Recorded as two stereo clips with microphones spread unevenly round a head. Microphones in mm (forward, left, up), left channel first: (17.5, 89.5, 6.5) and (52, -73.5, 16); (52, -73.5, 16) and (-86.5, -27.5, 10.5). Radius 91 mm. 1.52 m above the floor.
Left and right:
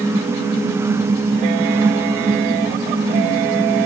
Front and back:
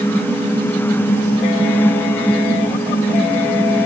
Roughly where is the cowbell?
I don't hear a cowbell.